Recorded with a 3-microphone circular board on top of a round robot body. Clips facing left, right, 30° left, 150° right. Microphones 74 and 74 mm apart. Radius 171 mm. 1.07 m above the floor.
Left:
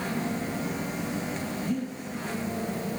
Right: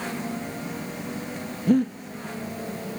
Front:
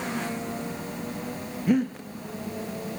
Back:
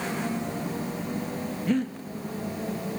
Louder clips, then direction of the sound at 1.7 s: Right 13 dB, front 3 dB; 50° right.